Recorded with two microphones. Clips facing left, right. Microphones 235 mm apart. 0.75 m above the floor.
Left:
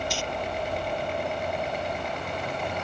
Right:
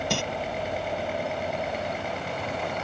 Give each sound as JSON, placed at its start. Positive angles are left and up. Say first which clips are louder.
{"t": 0.1, "sound": "crumpling", "louder": "right 4 dB", "side_deg": -65}